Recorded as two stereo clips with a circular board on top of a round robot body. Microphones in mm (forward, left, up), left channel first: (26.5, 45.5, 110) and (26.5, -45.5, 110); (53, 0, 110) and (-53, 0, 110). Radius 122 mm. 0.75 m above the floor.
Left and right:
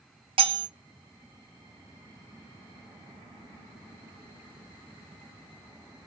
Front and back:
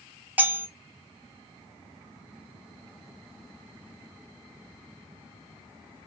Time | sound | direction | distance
0.4 | cutlery clinking | 105° right | 0.6 m